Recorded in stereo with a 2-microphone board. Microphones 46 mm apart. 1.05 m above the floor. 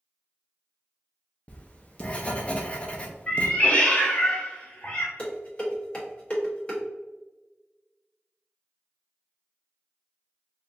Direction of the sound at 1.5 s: 30° left (ahead or behind).